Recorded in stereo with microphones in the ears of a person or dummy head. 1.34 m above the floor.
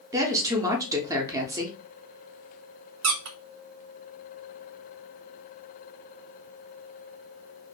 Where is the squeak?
60° right (ahead or behind), 0.6 m.